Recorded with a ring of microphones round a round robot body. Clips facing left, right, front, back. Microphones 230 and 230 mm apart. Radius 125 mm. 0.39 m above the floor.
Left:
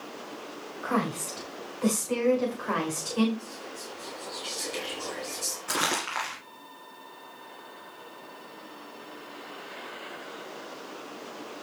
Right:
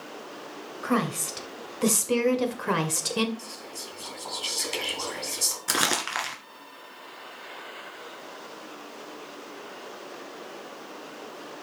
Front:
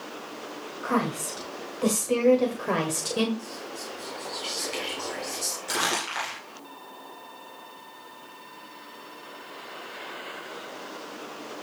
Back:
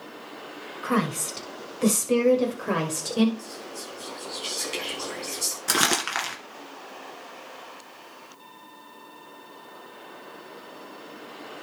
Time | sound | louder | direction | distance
0.8 | a woman speaking | right 3 dB, back 1 dB | 135° right | 2 m
3.4 | whispering | left 1 dB, front 1 dB | 110° right | 3 m
5.7 | crumpling | right 2 dB, back 5 dB | 145° right | 2.5 m